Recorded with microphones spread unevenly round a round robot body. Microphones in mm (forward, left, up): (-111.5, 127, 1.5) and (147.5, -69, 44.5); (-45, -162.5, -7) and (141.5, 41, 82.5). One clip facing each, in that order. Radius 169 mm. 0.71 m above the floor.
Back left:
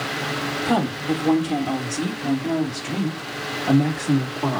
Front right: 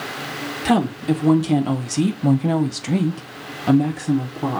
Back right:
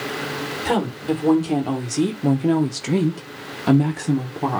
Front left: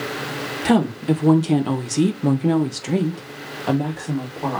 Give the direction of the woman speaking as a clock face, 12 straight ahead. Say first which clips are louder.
Front right 4 dB, front left 5 dB; 12 o'clock.